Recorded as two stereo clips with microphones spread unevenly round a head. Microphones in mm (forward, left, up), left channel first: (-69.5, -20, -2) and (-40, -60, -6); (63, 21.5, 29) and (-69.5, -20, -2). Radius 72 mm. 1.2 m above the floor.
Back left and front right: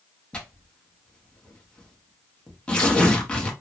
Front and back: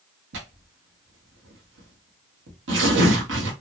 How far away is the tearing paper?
About 1.1 m.